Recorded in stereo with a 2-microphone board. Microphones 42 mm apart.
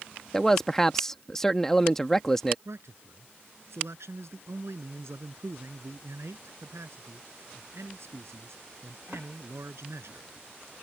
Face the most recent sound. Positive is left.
turn(degrees=-85)